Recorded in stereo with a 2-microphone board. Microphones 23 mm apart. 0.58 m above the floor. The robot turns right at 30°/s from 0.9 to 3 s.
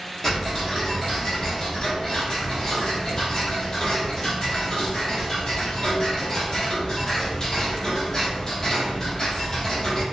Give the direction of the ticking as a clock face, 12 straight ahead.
11 o'clock.